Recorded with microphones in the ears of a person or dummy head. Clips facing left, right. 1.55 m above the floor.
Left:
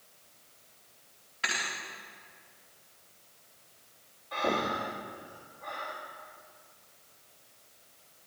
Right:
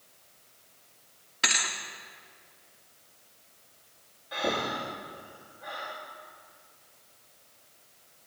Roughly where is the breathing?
Centre.